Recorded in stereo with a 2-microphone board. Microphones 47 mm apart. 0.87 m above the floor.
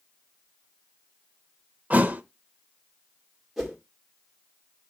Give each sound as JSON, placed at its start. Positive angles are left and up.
{"t": 1.9, "sound": "a thud", "side_deg": -35, "distance_m": 0.6}
{"t": 3.6, "sound": "a whoosh", "side_deg": -5, "distance_m": 2.0}